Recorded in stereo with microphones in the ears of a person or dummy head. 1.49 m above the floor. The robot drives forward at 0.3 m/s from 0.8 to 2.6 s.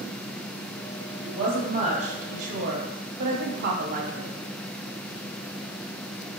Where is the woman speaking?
35° right (ahead or behind), 0.9 m; by 4.3 s 55° right (ahead or behind), 0.6 m.